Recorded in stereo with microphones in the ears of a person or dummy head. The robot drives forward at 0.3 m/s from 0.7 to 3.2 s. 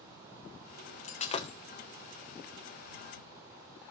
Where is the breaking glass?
45° left (ahead or behind), 1.1 m; by 1.6 s 40° left (ahead or behind), 1.2 m.